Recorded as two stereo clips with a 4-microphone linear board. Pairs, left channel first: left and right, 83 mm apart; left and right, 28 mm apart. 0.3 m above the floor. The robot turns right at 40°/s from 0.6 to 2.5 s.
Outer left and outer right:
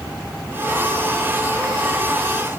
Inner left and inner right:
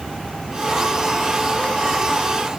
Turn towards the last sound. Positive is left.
No sound to turn to.